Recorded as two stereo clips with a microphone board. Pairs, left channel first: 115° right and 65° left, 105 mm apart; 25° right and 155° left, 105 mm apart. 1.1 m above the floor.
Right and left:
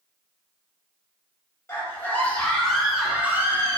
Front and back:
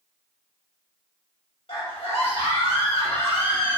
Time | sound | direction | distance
1.7 | a scream | 45° right | 3 m